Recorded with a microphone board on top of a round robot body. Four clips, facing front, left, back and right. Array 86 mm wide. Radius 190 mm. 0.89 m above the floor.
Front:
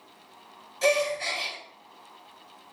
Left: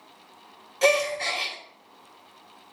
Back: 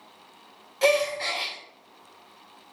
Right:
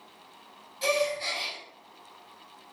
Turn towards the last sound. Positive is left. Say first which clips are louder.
# left 5 dB, back 2 dB
turn(degrees=130)